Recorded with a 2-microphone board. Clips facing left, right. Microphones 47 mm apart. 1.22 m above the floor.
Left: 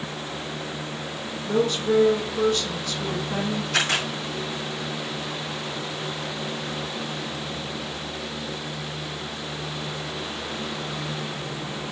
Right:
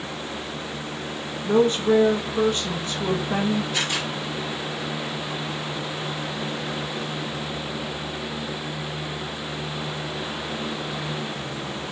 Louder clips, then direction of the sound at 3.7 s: Left 2 dB; 90° left.